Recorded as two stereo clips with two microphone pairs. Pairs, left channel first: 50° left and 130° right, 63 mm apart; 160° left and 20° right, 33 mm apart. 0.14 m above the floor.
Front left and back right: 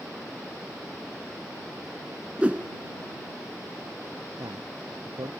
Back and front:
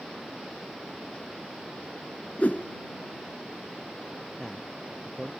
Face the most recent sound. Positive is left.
turn(degrees=-125)